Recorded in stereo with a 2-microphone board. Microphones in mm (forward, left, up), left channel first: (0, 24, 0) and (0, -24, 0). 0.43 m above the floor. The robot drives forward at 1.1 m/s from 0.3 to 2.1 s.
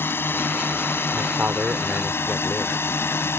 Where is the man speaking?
30° right (ahead or behind).